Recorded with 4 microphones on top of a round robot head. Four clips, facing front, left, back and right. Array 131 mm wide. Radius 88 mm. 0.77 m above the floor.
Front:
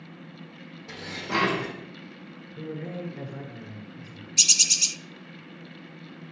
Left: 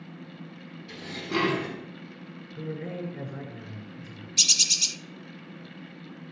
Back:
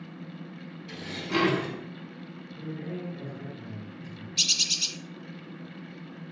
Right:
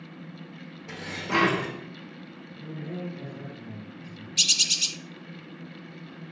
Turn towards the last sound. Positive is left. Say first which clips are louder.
# right 2 dB, front 4 dB
turn(degrees=40)